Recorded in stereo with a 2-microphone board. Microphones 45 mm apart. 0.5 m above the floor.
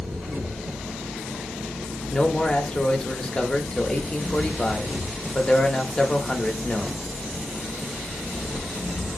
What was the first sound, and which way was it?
An engine running, 65° right (ahead or behind).